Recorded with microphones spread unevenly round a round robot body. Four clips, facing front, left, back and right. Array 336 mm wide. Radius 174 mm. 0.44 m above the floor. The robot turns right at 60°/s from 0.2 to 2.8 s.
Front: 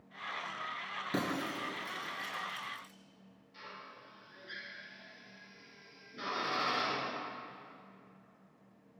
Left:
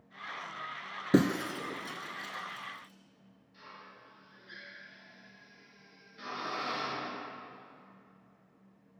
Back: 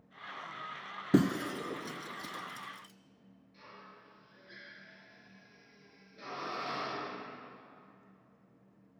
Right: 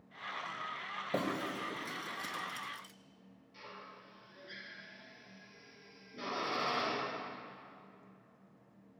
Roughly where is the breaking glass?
Behind left.